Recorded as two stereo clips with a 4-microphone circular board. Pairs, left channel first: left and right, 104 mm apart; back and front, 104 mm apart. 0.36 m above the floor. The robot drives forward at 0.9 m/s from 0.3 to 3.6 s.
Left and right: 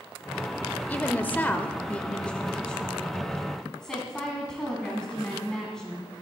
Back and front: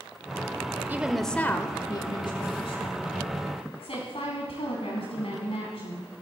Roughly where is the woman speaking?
Ahead left.